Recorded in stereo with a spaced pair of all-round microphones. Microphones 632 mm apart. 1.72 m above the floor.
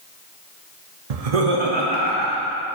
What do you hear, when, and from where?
1.1 s laughter: 85° right, 0.7 m; by 2.5 s 30° right (ahead or behind), 1.9 m